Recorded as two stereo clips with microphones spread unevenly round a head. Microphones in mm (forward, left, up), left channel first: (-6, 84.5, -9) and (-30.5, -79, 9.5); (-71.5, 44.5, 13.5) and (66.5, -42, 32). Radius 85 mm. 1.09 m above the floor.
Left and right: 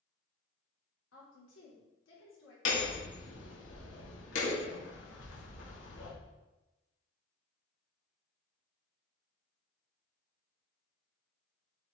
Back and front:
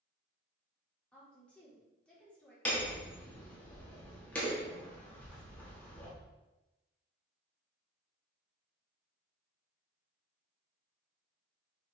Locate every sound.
1.1 s a woman speaking: 65° left, 3 m
2.6 s hammering: 65° left, 2 m